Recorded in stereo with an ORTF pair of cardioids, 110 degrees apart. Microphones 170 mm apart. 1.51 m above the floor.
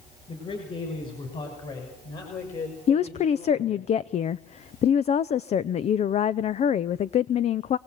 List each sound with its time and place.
0.3 s a man speaking: 35° left, 7.5 m; by 3.9 s 45° left, 5 m
2.9 s a woman speaking: 40° left, 0.6 m